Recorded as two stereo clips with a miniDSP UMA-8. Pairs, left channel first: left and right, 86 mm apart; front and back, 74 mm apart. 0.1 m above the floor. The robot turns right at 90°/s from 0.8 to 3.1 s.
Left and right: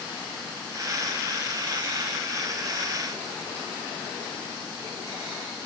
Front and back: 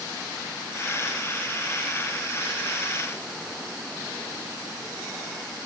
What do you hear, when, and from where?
Only background noise.